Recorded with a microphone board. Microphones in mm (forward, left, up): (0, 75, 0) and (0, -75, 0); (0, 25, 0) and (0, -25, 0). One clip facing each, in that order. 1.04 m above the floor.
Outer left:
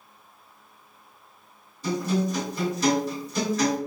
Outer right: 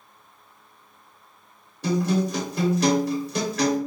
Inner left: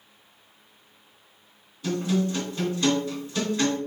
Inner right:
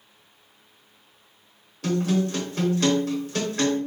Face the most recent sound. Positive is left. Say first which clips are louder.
# outer right 3 dB, inner right 2 dB
turn(degrees=-75)  # may be behind; listen again after turning